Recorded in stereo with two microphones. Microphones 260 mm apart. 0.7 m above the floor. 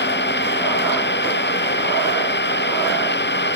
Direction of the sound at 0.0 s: 40° left (ahead or behind).